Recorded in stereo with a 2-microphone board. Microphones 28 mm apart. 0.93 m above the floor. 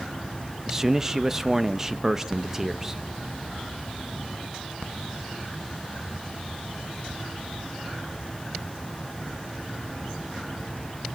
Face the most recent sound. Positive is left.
turn(degrees=-15)  # may be behind; listen again after turning